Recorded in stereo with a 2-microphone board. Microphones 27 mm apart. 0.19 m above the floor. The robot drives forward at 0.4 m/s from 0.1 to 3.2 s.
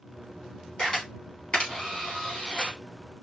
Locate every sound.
0.8 s a camera shutter: 25° left (ahead or behind), 4 m; by 2.8 s 30° left (ahead or behind), 3 m